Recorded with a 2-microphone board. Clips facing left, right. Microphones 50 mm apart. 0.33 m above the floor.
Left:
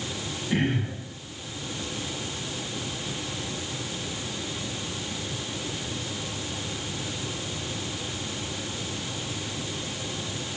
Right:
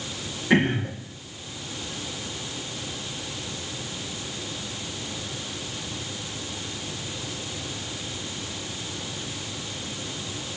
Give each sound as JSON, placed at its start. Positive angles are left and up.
{"t": 0.5, "sound": "throat clearing", "side_deg": -70, "distance_m": 8.5}